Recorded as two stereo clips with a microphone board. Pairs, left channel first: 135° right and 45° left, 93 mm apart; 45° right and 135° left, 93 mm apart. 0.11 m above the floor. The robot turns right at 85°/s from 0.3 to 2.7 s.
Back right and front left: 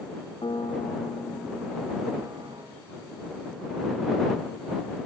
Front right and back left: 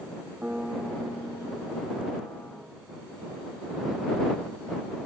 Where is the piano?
155° right; by 2.6 s 35° left.